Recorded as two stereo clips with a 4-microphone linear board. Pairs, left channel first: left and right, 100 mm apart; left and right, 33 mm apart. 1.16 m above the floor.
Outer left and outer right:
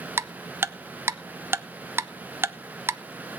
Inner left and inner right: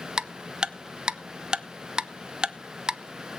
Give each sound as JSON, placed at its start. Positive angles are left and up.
{"t": 0.2, "sound": "ticking", "side_deg": -25, "distance_m": 0.5}